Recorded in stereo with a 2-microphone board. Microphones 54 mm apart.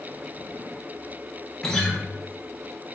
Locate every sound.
1.6 s a guitar: 10° left (ahead or behind), 0.7 m